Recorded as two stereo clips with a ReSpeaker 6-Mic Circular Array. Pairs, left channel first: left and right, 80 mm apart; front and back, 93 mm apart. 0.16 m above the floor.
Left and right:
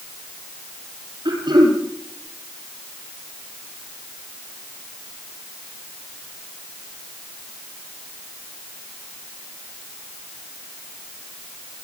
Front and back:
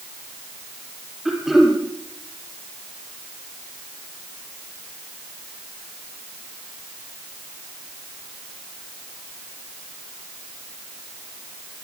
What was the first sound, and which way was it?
Throat clearing, 95° right.